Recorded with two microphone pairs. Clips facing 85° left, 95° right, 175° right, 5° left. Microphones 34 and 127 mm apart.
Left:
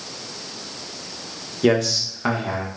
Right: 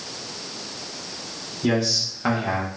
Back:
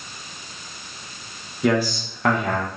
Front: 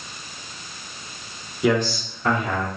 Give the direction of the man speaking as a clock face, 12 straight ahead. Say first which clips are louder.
Left 4 dB, even; 9 o'clock.